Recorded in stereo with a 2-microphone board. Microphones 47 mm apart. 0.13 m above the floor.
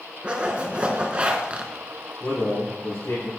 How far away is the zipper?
About 0.9 m.